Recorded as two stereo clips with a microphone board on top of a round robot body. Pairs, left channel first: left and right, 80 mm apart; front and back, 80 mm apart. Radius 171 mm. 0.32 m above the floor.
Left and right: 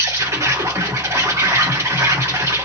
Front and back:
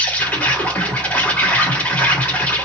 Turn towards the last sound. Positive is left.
turn(degrees=-60)